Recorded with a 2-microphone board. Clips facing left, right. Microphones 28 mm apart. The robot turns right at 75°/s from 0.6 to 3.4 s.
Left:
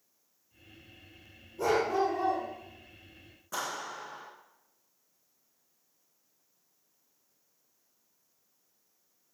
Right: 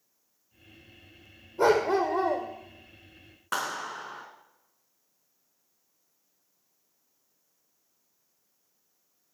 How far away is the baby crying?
I don't hear a baby crying.